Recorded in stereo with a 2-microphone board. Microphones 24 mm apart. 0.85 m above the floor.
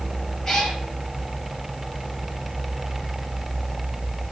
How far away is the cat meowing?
About 3.5 m.